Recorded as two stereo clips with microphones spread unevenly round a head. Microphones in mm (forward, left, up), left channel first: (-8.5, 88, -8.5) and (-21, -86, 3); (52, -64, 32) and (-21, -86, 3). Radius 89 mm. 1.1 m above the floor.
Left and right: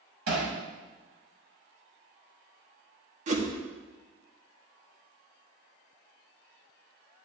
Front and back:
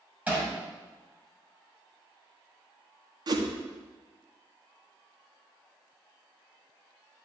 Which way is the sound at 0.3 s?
90° right.